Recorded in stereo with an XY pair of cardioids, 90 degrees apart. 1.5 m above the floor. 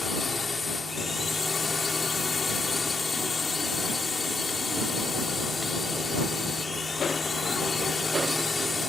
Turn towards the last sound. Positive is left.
turn(degrees=35)